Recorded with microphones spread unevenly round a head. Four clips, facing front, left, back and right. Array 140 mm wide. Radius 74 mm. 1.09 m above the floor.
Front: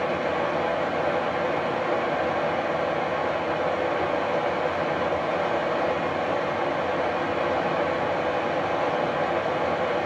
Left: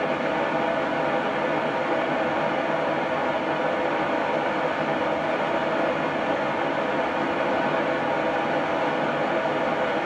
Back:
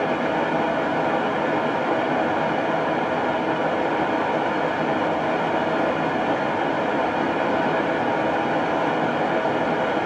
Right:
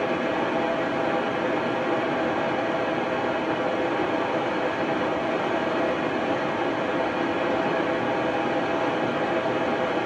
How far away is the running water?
About 1.0 m.